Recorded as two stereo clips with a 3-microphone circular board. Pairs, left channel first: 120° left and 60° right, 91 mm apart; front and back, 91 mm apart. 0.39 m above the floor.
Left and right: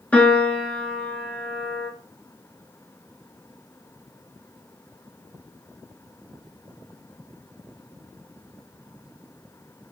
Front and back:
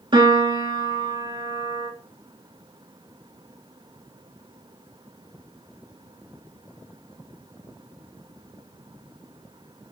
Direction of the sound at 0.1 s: 170° right.